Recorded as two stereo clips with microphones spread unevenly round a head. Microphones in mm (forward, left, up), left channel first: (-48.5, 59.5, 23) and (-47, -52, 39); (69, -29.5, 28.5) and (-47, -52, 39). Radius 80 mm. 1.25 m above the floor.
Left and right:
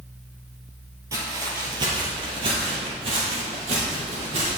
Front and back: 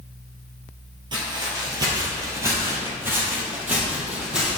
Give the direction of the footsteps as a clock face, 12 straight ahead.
5 o'clock.